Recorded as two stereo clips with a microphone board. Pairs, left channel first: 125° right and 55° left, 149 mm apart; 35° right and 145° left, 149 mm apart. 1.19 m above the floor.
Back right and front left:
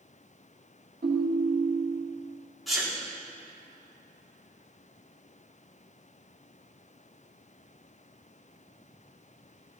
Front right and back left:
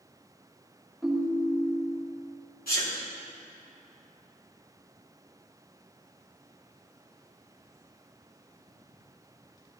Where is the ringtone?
60° left, 1.6 m.